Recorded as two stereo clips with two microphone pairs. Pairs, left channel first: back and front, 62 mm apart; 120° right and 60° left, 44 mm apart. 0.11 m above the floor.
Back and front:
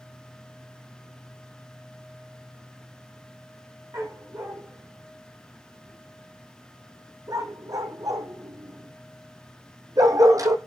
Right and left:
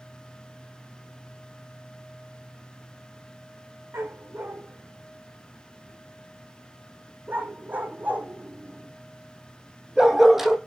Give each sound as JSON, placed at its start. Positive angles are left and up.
{"t": 3.9, "sound": "a dog barking", "azimuth_deg": 40, "distance_m": 5.0}